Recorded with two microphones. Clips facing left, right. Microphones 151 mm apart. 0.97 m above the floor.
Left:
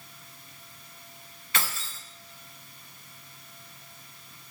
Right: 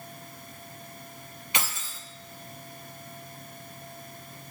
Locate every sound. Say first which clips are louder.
1.5 s keys jangling: even; 20° right (ahead or behind), 0.8 m